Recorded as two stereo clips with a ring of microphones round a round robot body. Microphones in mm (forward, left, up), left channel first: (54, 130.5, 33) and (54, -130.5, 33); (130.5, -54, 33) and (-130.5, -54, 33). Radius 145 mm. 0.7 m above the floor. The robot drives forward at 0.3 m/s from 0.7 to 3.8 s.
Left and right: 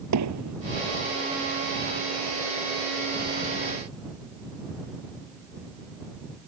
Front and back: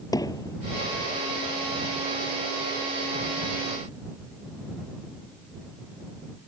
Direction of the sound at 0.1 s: 75° right.